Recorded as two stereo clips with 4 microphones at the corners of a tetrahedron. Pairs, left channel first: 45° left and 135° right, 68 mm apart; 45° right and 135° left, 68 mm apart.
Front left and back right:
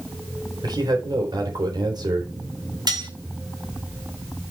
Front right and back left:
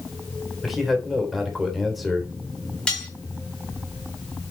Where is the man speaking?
135° right, 3.5 m.